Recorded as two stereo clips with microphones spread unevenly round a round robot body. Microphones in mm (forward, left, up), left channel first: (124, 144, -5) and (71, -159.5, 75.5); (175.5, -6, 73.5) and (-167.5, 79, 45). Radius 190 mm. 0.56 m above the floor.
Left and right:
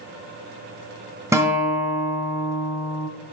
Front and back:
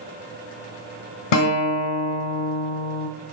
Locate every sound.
1.3 s a guitar: 20° right, 1.3 m